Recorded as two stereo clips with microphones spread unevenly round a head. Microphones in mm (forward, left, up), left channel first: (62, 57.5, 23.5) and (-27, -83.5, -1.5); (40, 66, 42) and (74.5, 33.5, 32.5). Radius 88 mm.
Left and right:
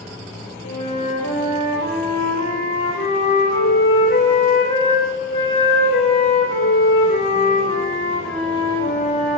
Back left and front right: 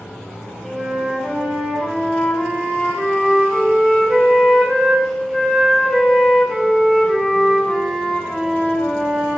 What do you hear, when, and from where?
0.6 s a flute: 45° left, 3 m